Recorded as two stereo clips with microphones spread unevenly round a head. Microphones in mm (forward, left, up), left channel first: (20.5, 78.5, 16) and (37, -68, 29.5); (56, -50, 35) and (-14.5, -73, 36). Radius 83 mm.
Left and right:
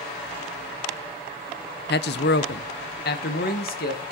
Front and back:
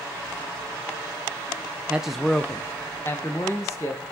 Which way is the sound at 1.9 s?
120° left.